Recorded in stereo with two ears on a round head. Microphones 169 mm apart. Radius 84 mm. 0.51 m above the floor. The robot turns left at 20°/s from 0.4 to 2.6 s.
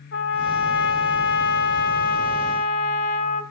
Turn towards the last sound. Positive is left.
turn(degrees=45)